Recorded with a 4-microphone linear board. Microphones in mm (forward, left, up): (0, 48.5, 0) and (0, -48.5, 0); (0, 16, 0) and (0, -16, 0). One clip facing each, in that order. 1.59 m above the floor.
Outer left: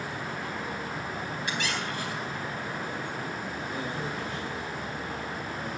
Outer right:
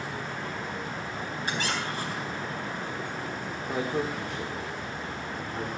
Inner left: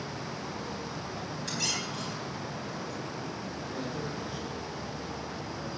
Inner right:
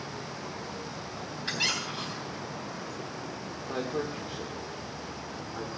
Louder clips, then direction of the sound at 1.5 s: Outer right 2 dB, inner right 4 dB; 35° right (ahead or behind).